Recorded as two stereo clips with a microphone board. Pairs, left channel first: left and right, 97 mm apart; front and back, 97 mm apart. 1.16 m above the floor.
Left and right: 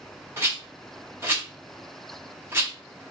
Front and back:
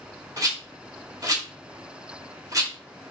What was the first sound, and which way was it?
A rattle, 145° right.